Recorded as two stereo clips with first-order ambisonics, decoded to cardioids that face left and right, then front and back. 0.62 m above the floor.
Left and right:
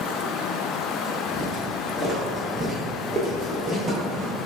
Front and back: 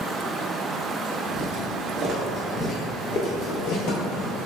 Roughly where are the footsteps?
Behind.